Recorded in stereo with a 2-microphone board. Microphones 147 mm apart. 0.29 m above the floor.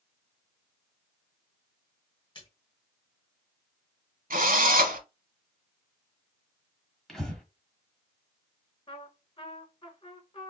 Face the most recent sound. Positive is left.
turn(degrees=35)  # may be behind; listen again after turning